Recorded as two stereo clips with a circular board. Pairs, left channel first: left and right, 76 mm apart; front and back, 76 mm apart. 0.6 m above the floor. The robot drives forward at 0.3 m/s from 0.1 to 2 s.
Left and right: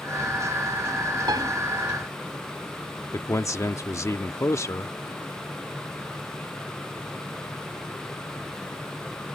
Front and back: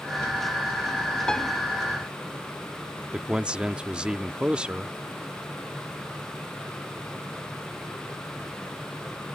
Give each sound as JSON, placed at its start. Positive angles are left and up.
{"t": 1.3, "sound": "a piano", "azimuth_deg": -80}
{"t": 3.1, "sound": "a man speaking", "azimuth_deg": 110}